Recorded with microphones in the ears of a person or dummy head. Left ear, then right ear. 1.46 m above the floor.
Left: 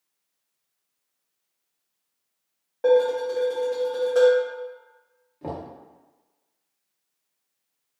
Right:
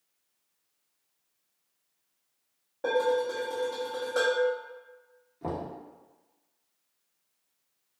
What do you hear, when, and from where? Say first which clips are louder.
2.8 s dishes clattering: left 7 dB; 20° left (ahead or behind), 0.6 m
5.4 s knocking: left 1 dB; 5° left (ahead or behind), 0.7 m